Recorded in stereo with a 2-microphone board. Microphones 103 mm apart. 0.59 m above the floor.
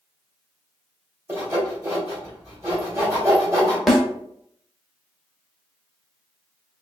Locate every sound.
1.3 s sawing: 30° right (ahead or behind), 2.0 m
3.9 s a snare drum: centre (ahead or behind), 0.7 m